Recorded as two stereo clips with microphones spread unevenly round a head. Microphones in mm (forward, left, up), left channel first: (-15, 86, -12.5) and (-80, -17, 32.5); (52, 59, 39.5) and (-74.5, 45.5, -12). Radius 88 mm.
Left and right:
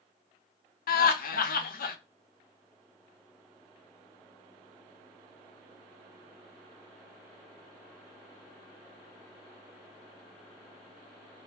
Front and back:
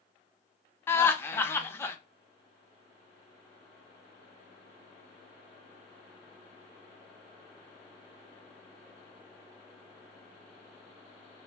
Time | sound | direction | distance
0.9 | laughter | 60° left | 0.6 m